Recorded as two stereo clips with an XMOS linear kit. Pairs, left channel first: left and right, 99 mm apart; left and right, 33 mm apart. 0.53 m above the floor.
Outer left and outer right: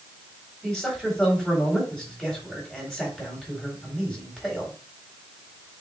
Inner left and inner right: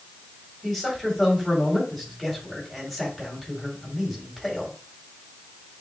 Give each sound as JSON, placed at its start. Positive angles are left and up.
{"t": 0.6, "sound": "a man speaking", "side_deg": 10, "distance_m": 3.5}